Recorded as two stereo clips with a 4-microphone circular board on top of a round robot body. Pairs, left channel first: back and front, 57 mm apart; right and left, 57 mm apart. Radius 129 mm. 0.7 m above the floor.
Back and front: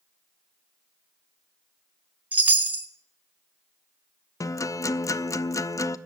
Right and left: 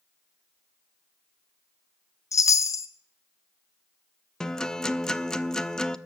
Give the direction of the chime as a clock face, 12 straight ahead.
2 o'clock.